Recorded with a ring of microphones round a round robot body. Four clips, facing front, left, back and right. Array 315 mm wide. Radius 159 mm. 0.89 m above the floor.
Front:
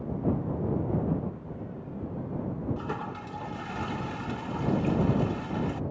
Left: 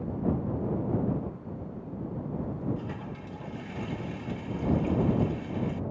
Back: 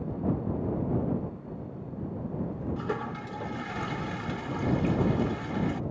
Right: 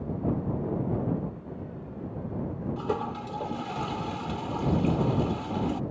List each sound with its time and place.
2.8 s a toilet flushing: 115° right